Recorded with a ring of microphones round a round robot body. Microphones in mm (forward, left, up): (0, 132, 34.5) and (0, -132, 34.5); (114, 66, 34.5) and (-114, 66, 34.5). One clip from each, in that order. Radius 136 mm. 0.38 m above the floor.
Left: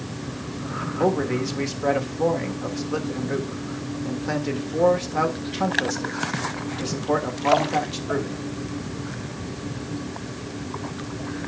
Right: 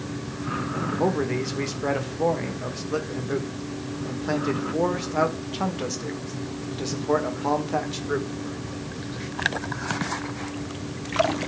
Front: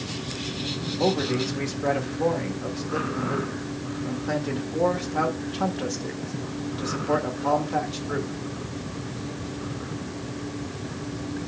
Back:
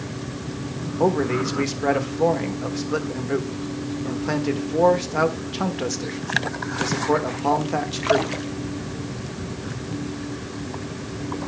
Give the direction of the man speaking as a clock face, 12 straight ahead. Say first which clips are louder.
Left 3 dB, back 4 dB; 6 o'clock.